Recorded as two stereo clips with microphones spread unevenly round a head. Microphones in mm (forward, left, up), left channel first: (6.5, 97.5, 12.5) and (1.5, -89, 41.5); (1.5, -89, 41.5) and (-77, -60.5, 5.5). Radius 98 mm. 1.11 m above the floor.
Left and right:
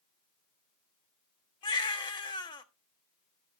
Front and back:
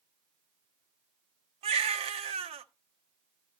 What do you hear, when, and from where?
1.6 s a baby crying: 160° left, 0.9 m